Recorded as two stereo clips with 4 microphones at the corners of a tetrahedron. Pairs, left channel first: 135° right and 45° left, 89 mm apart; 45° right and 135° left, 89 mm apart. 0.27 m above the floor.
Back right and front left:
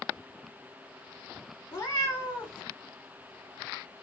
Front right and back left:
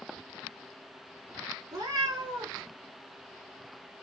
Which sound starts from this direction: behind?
A cat meowing, at 1.7 s.